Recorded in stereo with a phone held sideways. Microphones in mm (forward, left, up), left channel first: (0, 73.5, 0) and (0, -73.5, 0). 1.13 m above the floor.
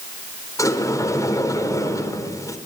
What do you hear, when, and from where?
0.6 s a sliding door: 20° left (ahead or behind), 4 m